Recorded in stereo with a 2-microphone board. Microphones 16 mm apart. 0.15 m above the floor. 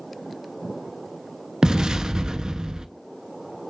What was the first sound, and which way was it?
An explosion, 55° right (ahead or behind).